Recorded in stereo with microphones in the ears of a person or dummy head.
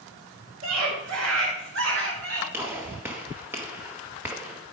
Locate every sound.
0.6 s a scream: 80° right, 5 m; by 2.4 s 60° right (ahead or behind), 4 m
2.5 s a gunshot: 15° right (ahead or behind), 1.9 m